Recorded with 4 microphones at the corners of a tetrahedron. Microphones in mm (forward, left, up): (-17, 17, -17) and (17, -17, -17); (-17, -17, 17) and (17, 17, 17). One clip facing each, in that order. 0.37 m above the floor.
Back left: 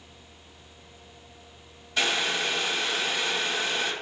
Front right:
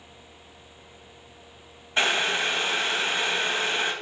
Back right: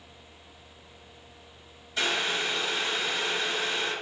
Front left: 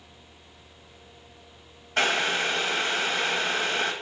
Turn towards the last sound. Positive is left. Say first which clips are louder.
# front right 3 dB, front left 4 dB
turn(degrees=10)